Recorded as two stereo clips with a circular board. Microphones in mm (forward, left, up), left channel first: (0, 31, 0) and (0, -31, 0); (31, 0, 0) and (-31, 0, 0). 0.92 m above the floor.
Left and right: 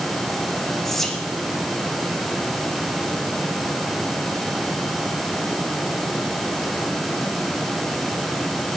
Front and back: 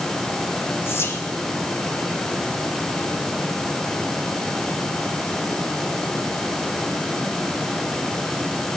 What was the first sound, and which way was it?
Whispering, 10° left.